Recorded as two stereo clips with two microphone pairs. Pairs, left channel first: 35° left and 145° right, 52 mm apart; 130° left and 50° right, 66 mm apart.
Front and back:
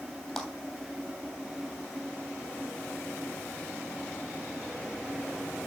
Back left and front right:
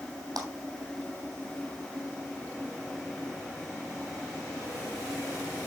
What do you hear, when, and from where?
0.4 s a clap: 55° right, 3 m